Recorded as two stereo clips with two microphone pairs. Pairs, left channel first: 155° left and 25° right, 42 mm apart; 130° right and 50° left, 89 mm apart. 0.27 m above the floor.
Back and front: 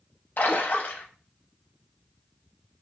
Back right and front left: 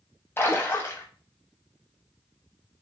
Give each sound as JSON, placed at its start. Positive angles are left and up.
{"t": 0.4, "sound": "a splash", "azimuth_deg": 175, "distance_m": 0.7}